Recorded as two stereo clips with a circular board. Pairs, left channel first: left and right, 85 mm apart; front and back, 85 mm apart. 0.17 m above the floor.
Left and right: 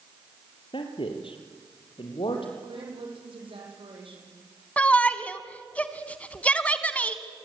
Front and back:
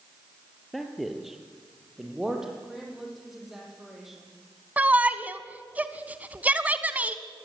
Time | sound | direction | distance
0.7 | a man speaking | 90° left | 3.5 m
2.6 | a woman speaking | 95° right | 7.5 m
4.8 | a shout | 140° left | 1.0 m